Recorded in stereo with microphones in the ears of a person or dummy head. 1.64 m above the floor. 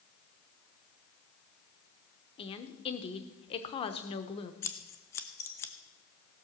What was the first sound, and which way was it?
A woman speaking, 30° left (ahead or behind).